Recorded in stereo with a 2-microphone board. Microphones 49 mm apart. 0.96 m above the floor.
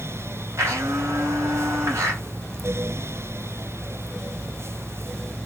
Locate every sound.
0.6 s a blender: 75° right (ahead or behind), 2.5 m